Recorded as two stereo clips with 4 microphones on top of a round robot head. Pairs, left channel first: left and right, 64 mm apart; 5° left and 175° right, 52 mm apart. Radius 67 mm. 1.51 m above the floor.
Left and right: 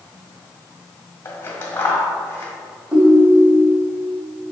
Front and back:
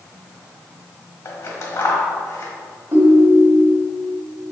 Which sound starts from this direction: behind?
A ringtone, at 2.9 s.